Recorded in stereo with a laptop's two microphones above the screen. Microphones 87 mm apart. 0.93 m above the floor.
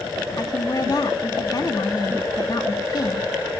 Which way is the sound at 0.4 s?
45° left (ahead or behind).